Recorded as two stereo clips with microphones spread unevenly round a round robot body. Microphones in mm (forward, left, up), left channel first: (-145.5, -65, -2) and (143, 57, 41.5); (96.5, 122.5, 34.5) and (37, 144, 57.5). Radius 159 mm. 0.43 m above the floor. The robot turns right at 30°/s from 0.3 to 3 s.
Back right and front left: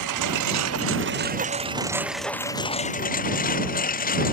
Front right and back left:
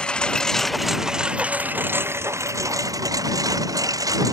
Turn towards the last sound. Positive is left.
turn(degrees=140)